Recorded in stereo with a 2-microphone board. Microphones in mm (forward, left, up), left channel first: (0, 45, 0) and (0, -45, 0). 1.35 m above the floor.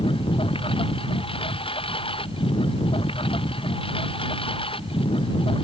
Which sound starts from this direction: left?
A lawn mower, at 0.0 s.